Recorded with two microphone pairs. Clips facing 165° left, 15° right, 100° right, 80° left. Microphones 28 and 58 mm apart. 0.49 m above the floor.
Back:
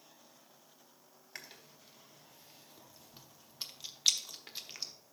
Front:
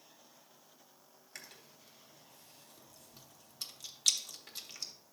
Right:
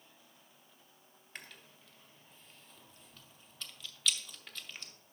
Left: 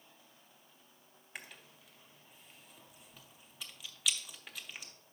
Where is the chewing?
140° left, 0.7 m.